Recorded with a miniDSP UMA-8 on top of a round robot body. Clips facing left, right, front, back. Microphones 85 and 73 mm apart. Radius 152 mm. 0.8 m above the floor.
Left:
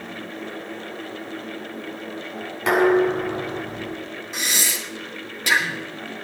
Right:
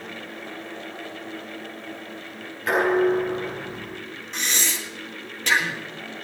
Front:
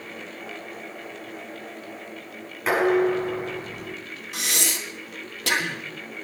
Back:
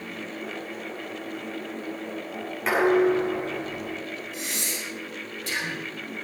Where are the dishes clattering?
90° left, 6.5 m.